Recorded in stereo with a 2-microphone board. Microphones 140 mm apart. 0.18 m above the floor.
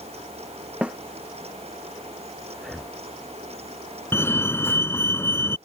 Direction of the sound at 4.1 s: 20° left (ahead or behind).